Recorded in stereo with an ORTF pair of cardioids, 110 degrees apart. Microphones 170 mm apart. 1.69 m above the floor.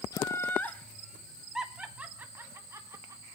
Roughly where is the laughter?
Ahead.